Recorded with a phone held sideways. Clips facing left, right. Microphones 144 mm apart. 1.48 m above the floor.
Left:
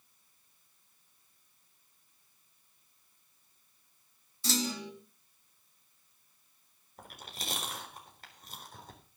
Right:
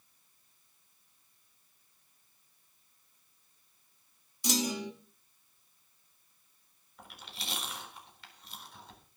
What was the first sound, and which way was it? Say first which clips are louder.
A clunk: right 2 dB; 15° right (ahead or behind).